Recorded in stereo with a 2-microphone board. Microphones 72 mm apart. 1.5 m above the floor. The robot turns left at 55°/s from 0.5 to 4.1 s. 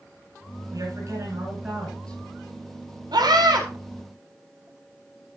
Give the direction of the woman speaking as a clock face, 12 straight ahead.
4 o'clock.